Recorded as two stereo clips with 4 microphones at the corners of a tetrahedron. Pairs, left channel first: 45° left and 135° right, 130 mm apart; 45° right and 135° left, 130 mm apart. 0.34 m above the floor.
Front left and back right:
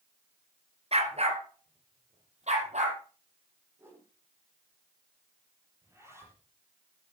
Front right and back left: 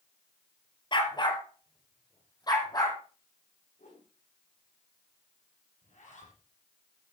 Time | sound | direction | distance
0.9 | a dog barking | 100° right | 2.5 m
3.8 | a whoosh | 65° right | 7 m
5.8 | a zipper | 65° right | 7 m